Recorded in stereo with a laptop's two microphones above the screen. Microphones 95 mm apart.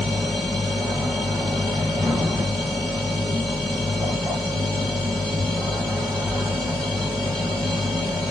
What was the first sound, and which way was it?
A machine running, 45° right (ahead or behind).